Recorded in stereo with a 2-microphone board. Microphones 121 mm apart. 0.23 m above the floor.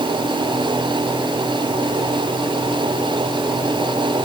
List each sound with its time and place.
Only background noise.